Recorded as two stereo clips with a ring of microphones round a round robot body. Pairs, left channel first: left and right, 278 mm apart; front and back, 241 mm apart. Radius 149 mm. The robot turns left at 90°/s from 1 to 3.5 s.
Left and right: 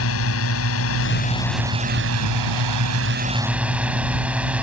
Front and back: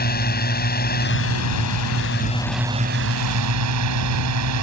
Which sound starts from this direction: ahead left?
A drone, at 0.0 s.